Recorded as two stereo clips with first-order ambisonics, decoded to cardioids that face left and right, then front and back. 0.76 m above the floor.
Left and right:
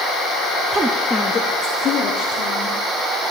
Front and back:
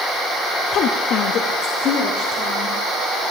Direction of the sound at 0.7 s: 30° right.